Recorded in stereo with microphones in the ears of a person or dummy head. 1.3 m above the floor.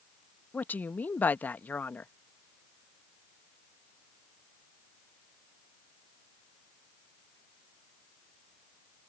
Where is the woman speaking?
10° left (ahead or behind).